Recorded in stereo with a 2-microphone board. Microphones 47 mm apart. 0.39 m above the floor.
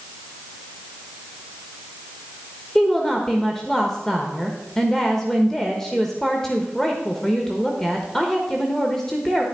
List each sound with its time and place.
2.8 s a woman speaking: 10° left (ahead or behind), 1.2 m